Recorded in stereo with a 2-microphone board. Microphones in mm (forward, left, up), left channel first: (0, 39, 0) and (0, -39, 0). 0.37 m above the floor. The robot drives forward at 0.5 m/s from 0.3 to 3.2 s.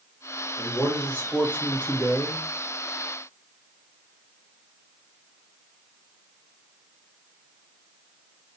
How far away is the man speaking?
About 0.9 m.